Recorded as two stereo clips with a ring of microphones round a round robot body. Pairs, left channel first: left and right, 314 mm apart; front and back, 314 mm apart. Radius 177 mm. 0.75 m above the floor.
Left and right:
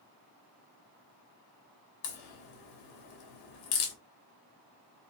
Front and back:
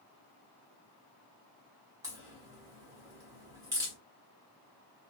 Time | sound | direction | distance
2.0 | a crack | 100° left | 1.0 m